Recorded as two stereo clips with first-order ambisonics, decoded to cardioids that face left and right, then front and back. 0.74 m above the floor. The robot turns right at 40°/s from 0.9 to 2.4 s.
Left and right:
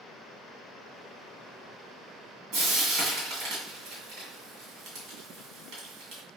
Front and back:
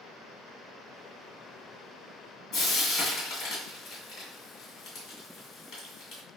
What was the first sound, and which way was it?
Frying, 50° right.